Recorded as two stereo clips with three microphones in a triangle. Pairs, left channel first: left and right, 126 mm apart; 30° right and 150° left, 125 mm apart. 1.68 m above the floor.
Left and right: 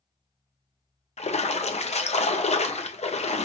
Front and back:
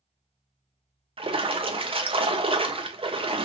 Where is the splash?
110° left, 0.7 m.